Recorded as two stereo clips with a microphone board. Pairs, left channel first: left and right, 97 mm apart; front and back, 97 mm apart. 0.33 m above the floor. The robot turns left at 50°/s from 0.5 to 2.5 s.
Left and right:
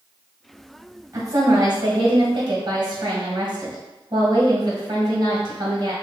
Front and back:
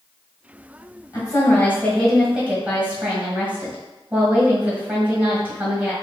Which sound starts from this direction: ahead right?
A woman speaking, at 1.1 s.